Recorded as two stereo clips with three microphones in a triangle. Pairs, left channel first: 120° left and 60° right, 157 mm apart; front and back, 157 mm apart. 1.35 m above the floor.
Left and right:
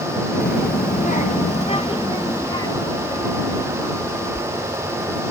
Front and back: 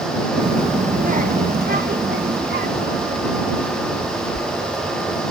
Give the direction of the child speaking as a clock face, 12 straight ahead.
8 o'clock.